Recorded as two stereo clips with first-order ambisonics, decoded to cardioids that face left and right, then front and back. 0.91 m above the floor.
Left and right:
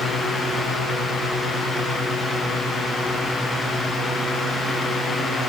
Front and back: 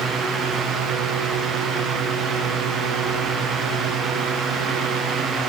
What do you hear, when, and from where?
Only background noise.